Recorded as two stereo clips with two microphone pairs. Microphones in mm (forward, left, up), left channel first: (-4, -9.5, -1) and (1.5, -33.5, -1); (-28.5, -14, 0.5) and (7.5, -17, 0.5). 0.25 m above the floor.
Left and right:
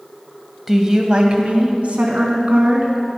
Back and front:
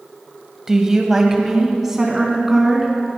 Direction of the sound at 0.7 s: 45° right.